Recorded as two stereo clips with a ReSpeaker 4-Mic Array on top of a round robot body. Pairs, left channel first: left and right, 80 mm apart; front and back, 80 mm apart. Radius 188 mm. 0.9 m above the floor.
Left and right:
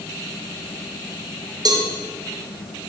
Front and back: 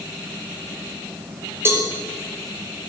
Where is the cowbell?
120° right, 1.4 m.